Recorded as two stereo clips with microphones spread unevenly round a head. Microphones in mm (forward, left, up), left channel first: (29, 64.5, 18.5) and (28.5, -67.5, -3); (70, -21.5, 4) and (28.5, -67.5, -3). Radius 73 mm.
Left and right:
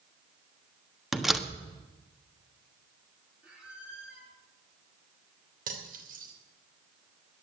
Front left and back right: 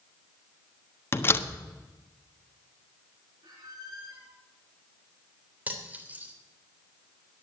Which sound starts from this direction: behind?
A squeak, at 3.4 s.